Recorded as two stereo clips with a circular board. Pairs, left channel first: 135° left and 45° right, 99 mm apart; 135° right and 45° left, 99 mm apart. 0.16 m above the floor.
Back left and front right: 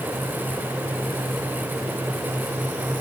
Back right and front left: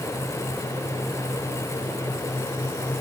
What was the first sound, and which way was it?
Only background noise.